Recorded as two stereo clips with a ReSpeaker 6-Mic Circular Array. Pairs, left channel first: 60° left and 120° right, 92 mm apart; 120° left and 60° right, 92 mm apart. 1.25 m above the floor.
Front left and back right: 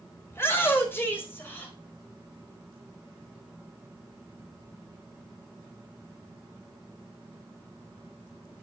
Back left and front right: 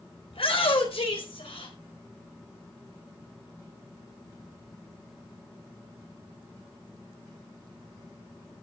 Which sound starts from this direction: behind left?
A shout, at 0.3 s.